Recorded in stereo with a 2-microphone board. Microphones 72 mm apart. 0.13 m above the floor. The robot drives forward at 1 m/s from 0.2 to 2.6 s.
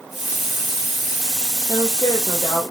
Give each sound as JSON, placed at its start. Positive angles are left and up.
{"t": 1.7, "sound": "a woman speaking", "side_deg": 70, "distance_m": 4.5}